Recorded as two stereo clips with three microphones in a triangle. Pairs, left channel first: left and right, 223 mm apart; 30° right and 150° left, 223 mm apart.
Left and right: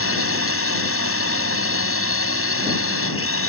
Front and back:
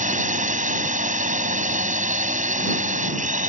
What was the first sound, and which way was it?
A drone, 95° left.